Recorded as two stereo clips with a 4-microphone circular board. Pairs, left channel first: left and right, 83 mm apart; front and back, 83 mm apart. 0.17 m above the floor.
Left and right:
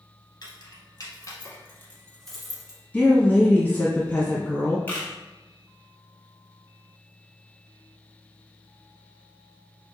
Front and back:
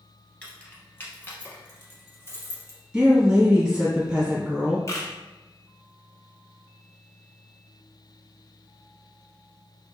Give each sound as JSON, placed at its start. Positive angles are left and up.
{"t": 0.4, "sound": "keys jangling", "azimuth_deg": 70, "distance_m": 1.3}
{"t": 2.9, "sound": "a woman speaking", "azimuth_deg": 120, "distance_m": 1.0}
{"t": 4.9, "sound": "a camera shutter", "azimuth_deg": 25, "distance_m": 0.9}